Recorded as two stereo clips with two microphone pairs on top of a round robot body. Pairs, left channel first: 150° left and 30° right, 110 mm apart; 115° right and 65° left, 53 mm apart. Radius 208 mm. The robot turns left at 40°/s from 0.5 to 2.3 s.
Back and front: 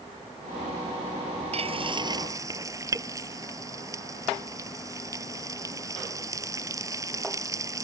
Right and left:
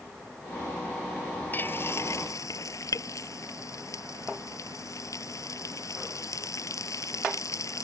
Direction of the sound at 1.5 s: 60° right.